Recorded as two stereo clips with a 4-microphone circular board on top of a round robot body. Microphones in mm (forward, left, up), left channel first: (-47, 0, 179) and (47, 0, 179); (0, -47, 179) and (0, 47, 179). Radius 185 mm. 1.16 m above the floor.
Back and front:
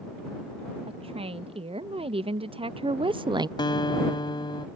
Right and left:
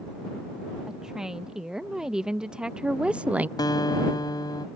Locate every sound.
0.9 s a woman speaking: 5° left; by 3.5 s 25° left
3.6 s a guitar: 140° right